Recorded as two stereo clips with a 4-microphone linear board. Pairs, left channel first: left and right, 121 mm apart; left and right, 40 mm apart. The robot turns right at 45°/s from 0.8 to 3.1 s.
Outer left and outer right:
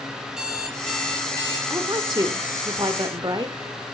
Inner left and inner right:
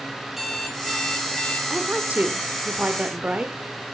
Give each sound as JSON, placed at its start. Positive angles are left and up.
{"t": 0.3, "sound": "an alarm clock", "azimuth_deg": -5, "distance_m": 2.5}
{"t": 1.7, "sound": "a woman speaking", "azimuth_deg": -130, "distance_m": 1.2}